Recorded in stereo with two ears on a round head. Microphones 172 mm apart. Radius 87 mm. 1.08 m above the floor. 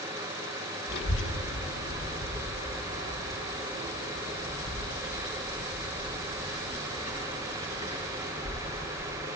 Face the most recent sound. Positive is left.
turn(degrees=35)  # may be behind; listen again after turning